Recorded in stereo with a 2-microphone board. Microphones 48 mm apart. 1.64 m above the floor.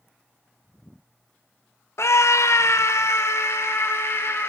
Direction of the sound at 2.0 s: 65° left (ahead or behind).